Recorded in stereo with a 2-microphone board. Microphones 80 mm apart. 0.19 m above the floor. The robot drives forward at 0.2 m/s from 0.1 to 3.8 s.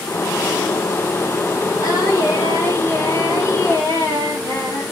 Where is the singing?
45° left (ahead or behind), 1.6 m; by 4.8 s 35° left (ahead or behind), 1.8 m.